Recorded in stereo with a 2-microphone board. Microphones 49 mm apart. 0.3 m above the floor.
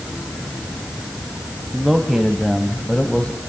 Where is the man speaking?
5° right (ahead or behind), 2 m; by 3.4 s 25° left (ahead or behind), 2 m.